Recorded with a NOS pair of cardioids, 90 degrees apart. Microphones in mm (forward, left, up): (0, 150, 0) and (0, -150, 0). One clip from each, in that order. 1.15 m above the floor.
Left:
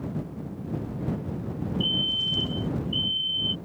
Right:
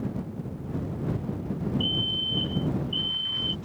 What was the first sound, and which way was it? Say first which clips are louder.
A fire alarm: left 2 dB; 10° right.